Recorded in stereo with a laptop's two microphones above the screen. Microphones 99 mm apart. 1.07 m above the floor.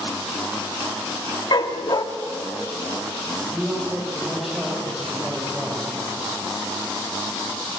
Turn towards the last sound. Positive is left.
turn(degrees=-5)  # may be behind; listen again after turning